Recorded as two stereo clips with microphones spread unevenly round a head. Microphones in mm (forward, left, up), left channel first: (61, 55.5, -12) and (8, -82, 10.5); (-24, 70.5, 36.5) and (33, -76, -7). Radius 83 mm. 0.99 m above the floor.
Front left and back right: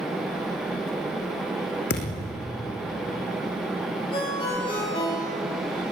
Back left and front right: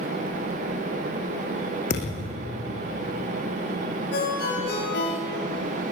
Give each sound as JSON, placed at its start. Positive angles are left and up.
{"t": 1.9, "sound": "a thud", "azimuth_deg": 65, "distance_m": 4.5}
{"t": 4.1, "sound": "a ringtone", "azimuth_deg": 130, "distance_m": 7.5}